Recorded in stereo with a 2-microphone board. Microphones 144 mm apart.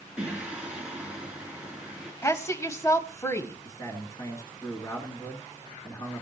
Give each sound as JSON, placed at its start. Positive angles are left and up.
{"t": 0.2, "sound": "singing", "side_deg": -10, "distance_m": 3.5}
{"t": 2.2, "sound": "a woman speaking", "side_deg": 20, "distance_m": 1.0}
{"t": 3.6, "sound": "a man speaking", "side_deg": 25, "distance_m": 2.0}